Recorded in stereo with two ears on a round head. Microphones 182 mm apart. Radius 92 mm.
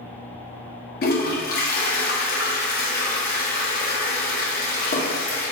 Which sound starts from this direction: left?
A toilet flushing, at 1.0 s.